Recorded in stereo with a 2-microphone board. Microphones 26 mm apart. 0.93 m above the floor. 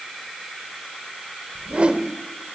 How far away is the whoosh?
About 1.3 m.